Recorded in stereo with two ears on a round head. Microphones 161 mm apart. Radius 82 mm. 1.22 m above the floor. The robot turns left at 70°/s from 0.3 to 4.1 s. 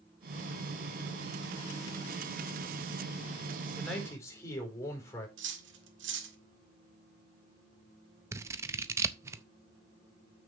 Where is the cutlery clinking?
70° right (ahead or behind), 1.7 m.